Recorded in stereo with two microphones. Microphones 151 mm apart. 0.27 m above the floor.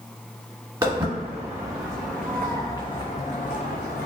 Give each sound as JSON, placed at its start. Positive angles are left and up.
{"t": 0.8, "sound": "footsteps", "side_deg": -20, "distance_m": 1.5}